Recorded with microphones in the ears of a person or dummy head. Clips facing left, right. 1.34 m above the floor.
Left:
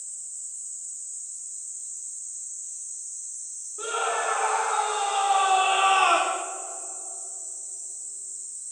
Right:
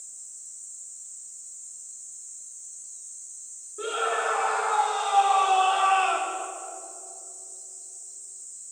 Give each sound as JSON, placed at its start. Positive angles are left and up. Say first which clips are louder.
{"t": 3.8, "sound": "a scream", "louder": "right 1 dB", "side_deg": -15, "distance_m": 3.5}